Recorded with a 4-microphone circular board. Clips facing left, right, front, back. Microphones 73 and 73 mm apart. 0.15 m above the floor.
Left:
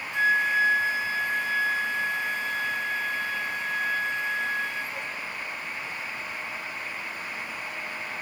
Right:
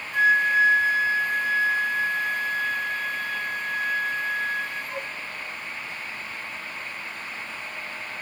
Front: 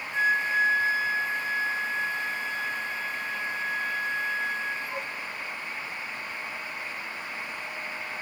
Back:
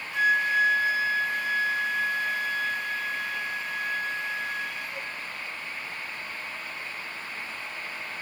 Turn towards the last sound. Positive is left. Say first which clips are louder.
# right 4 dB, back 1 dB
turn(degrees=-55)